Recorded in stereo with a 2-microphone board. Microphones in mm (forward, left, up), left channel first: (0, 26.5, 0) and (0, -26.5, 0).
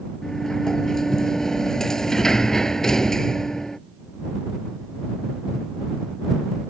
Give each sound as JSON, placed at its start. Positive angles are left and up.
{"t": 0.2, "sound": "a sliding door", "side_deg": 10}